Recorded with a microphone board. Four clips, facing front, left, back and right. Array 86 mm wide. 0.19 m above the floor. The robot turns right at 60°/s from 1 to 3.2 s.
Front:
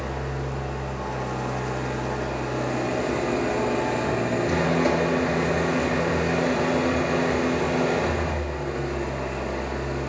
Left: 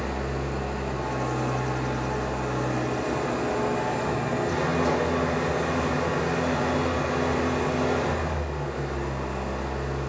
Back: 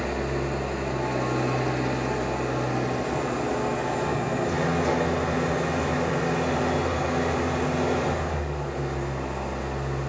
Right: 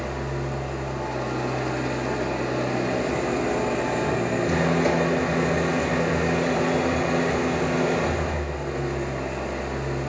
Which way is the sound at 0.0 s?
175° left.